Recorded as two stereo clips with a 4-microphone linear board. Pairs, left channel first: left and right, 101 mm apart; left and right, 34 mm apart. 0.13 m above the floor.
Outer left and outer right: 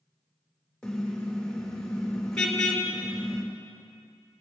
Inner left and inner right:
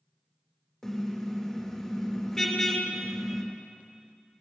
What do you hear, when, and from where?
0.8 s a car horn: 5° left (ahead or behind), 3.5 m